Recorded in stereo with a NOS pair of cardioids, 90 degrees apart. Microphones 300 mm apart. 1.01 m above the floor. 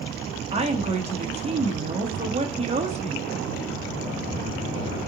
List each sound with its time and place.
0.5 s a woman speaking: 20° right, 1.0 m